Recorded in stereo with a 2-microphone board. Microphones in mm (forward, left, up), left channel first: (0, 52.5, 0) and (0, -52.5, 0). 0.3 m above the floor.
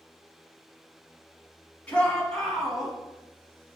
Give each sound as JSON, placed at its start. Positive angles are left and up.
{"t": 1.9, "sound": "a shout", "side_deg": 10, "distance_m": 2.0}